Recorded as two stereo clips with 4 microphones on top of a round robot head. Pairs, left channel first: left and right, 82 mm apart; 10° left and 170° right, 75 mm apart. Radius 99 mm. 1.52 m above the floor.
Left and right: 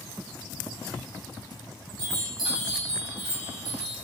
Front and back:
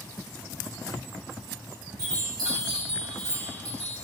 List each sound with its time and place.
2.0 s a chime: 125° right, 0.5 m